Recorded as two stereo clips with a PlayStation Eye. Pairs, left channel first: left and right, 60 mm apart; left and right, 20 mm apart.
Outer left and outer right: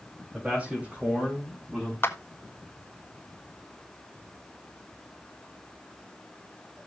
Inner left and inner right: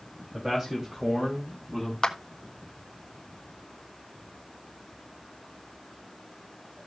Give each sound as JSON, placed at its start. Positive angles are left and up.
{"t": 0.3, "sound": "a man speaking", "side_deg": -20, "distance_m": 3.5}
{"t": 2.0, "sound": "a clap", "side_deg": 40, "distance_m": 1.2}